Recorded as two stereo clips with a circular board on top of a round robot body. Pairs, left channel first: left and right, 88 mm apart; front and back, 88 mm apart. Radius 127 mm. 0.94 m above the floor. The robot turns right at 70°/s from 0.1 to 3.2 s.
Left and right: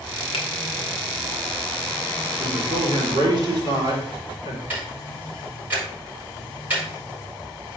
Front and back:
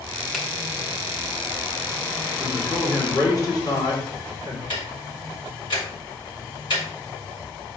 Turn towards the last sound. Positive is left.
turn(degrees=-20)